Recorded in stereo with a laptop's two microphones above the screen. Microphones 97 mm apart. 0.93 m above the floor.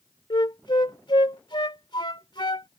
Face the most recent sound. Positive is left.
turn(degrees=55)  # may be behind; listen again after turning